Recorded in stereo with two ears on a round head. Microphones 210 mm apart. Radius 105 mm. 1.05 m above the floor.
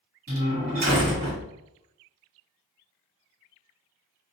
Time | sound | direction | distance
0.3 | a door slam | 40° right (ahead or behind) | 2.5 m